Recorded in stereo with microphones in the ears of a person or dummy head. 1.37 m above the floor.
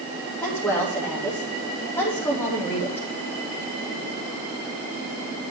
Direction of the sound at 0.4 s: 10° left (ahead or behind).